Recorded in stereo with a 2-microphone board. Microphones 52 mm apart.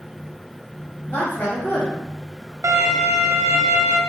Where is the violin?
65° right (ahead or behind), 0.6 m.